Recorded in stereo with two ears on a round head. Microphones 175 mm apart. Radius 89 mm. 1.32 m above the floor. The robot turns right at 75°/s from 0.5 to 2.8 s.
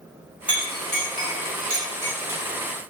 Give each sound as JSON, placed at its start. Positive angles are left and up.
{"t": 0.5, "sound": "a clink", "side_deg": -10, "distance_m": 1.4}